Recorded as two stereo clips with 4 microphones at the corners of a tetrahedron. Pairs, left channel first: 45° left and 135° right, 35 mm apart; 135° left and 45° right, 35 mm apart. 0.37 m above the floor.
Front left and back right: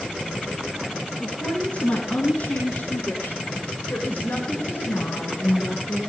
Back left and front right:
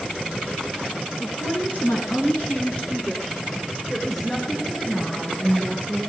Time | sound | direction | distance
1.2 | a woman speaking | 105° left | 4.5 m